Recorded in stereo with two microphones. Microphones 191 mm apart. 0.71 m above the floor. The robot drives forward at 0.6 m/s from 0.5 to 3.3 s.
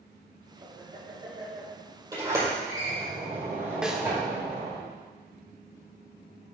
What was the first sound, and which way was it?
Laughter, 30° right (ahead or behind).